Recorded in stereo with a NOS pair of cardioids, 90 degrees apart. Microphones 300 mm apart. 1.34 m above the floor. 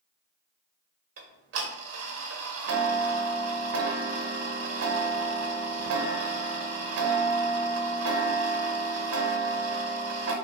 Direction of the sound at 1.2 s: 55° right.